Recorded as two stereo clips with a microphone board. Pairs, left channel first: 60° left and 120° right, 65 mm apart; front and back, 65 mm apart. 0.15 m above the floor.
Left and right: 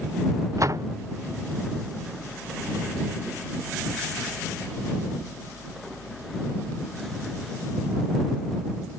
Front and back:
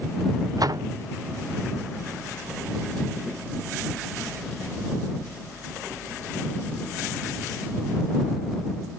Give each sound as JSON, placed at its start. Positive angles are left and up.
{"t": 0.6, "sound": "a door slam", "azimuth_deg": -155}